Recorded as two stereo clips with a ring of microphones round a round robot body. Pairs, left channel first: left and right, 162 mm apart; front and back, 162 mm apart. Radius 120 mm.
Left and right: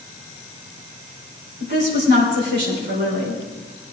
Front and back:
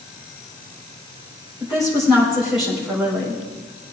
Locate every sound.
1.6 s a woman speaking: 90° right, 4.5 m